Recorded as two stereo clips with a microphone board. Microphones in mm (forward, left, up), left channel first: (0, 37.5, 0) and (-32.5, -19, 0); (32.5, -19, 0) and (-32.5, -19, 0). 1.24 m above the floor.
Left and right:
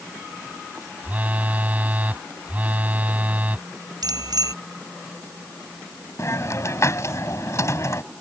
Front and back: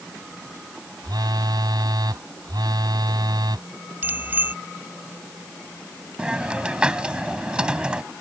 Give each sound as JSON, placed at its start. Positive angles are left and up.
{"t": 1.0, "sound": "a phone buzzing", "azimuth_deg": 175}
{"t": 4.0, "sound": "a bicycle bell", "azimuth_deg": -120}
{"t": 6.2, "sound": "a hiss", "azimuth_deg": 105}